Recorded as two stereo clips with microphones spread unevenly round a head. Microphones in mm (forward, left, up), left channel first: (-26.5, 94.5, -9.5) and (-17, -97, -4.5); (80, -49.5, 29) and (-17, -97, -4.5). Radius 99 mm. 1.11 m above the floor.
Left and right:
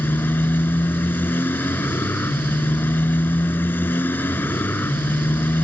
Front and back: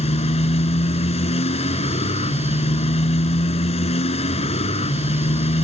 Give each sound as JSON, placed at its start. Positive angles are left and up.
{"t": 0.0, "sound": "a motorcycle", "azimuth_deg": 10}